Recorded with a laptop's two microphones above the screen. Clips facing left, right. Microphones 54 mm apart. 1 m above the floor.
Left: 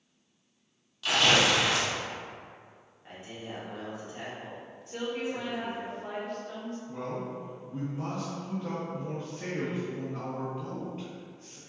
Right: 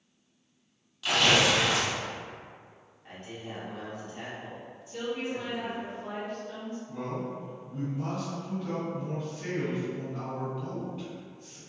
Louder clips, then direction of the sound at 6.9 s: Right 1 dB; 45° left (ahead or behind).